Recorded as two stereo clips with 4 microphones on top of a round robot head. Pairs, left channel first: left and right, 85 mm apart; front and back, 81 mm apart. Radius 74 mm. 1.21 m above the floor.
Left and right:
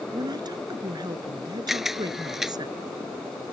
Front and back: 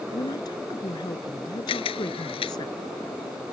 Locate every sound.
0.1 s a woman speaking: 50° right
1.7 s a camera shutter: 5° right